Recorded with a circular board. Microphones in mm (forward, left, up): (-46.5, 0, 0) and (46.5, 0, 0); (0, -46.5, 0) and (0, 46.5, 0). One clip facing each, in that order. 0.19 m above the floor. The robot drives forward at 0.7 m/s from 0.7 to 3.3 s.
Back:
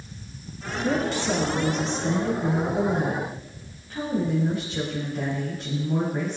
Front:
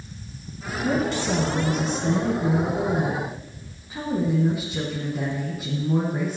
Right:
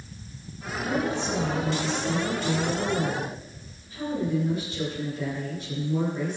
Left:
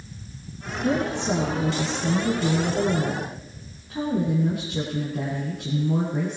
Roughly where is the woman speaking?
Ahead left.